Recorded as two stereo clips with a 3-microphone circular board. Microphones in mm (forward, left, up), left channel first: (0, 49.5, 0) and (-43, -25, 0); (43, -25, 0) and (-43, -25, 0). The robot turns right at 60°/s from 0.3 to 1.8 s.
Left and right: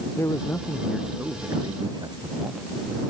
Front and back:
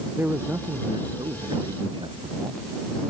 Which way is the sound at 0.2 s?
115° left.